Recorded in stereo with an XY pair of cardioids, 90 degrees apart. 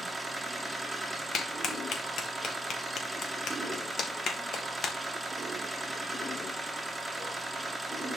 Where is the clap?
65° left, 1.7 m.